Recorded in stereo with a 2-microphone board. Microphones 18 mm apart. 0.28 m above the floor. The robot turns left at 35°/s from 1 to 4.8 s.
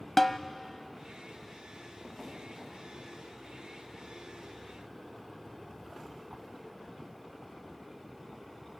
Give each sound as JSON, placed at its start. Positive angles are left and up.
{"t": 0.2, "sound": "a snare drum", "side_deg": 20, "distance_m": 0.6}